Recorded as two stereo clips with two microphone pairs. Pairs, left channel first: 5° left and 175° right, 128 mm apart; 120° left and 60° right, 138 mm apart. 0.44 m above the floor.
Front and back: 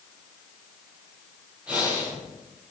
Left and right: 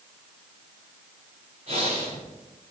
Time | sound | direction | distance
1.7 | breathing | 95° right | 6.5 m